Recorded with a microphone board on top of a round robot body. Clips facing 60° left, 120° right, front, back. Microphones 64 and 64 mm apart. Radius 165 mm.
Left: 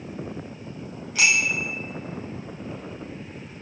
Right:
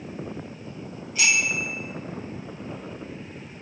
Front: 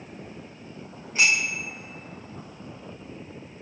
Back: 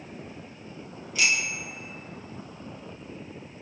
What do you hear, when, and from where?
1.1 s a bicycle bell: 55° left, 5 m